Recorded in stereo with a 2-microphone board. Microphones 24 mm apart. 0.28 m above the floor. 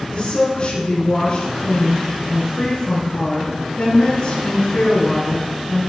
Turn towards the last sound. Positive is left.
turn(degrees=65)  # may be behind; listen again after turning